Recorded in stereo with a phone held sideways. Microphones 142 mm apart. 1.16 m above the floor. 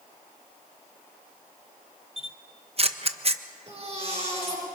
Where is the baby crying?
45° right (ahead or behind), 6.5 m.